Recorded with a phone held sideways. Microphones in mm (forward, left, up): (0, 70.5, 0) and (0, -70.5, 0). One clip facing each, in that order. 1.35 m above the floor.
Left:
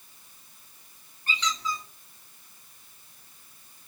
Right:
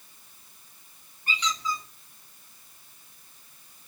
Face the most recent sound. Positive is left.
turn(degrees=-15)  # may be behind; listen again after turning